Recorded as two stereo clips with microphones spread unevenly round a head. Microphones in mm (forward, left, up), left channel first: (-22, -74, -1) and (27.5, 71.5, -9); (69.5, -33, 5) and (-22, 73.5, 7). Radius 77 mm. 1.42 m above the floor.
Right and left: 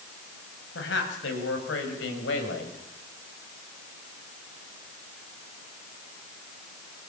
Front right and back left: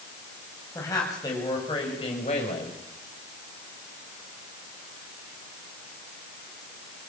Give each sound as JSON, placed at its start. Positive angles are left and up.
{"t": 0.8, "sound": "a woman speaking", "azimuth_deg": -125, "distance_m": 7.5}